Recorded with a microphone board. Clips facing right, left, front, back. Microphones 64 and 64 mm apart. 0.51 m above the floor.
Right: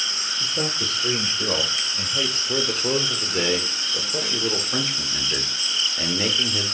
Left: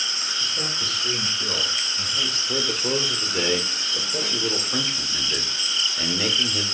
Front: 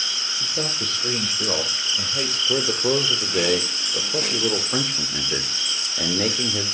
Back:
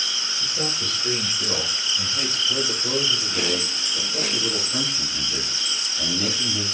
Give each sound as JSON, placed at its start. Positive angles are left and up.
{"t": 0.4, "sound": "a man speaking", "azimuth_deg": -40, "distance_m": 1.8}
{"t": 2.5, "sound": "a man speaking", "azimuth_deg": -5, "distance_m": 1.1}